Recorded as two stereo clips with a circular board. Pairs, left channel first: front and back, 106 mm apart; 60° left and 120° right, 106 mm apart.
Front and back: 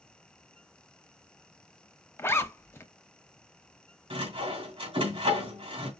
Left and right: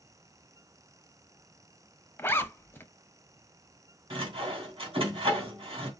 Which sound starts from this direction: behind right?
Sawing, at 4.1 s.